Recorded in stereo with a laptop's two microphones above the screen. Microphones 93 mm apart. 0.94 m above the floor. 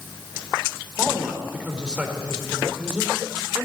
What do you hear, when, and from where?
1.0 s a man speaking: 10° right (ahead or behind), 4 m